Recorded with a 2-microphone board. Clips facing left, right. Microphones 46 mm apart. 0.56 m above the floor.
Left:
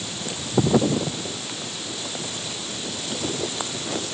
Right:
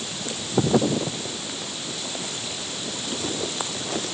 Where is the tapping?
No tapping in this recording.